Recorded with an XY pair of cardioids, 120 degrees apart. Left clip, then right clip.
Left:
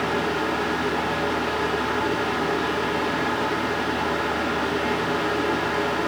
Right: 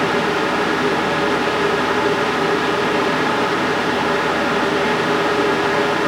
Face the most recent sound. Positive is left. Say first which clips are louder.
# right 6 dB
turn(degrees=-45)